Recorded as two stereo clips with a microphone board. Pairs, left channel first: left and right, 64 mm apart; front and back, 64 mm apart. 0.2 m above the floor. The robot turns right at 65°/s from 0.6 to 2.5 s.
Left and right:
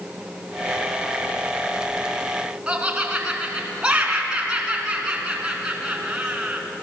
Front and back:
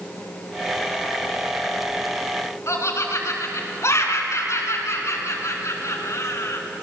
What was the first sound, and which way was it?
Laughter, 20° right.